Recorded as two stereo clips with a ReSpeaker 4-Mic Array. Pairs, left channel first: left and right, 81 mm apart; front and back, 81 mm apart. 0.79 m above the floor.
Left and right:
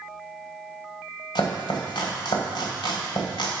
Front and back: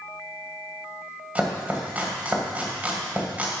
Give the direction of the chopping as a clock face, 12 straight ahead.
8 o'clock.